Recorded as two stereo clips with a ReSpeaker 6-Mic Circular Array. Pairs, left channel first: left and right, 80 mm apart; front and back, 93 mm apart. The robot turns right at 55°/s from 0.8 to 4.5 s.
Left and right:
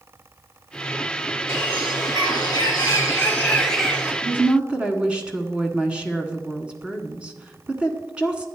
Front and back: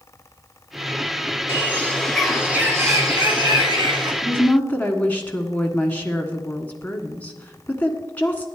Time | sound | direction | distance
1.5 | a bird | 50° left | 3 m
4.2 | a woman speaking | 50° right | 1.3 m